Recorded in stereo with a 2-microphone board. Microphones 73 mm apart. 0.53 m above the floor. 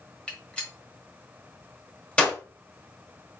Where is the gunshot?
15° left (ahead or behind), 1.3 m.